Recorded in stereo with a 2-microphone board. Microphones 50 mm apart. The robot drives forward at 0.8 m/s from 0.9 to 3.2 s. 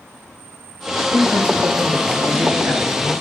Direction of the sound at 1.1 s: 65° right (ahead or behind).